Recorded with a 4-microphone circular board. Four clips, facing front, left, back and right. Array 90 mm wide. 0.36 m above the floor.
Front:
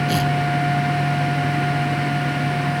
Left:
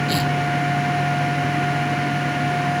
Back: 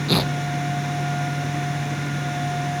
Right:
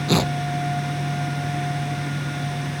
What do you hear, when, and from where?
0.1 s tearing paper: 120° right